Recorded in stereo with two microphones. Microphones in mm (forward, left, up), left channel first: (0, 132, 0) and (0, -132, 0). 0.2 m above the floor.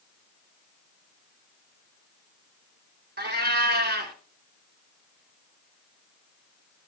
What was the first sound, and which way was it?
A cat meowing, 40° right (ahead or behind).